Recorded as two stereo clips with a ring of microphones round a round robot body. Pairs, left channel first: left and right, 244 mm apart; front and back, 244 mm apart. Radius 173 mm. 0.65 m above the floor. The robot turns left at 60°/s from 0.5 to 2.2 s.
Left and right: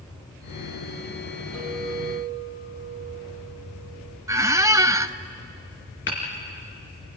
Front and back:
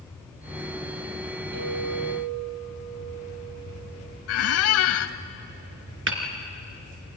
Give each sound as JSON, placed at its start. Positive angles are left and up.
{"t": 1.5, "sound": "a clink", "azimuth_deg": -160, "distance_m": 8.5}
{"t": 4.3, "sound": "a squeak", "azimuth_deg": -15, "distance_m": 0.7}
{"t": 6.1, "sound": "hammering", "azimuth_deg": 150, "distance_m": 2.5}